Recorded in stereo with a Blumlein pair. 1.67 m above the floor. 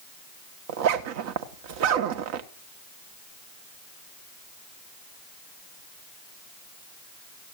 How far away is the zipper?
About 1.3 m.